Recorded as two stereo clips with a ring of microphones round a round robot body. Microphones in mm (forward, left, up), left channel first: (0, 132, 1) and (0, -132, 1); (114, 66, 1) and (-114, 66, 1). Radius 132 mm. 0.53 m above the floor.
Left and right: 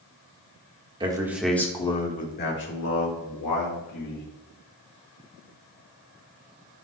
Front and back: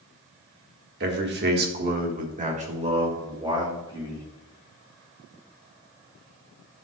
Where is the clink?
No clink in this recording.